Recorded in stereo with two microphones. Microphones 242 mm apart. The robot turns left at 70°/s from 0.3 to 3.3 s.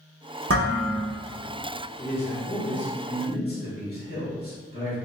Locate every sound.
0.5 s dishes clattering: 80° right, 1.1 m; by 0.9 s 110° right, 1.1 m
2.0 s a man speaking: straight behind, 1.3 m; by 5.0 s 85° left, 1.3 m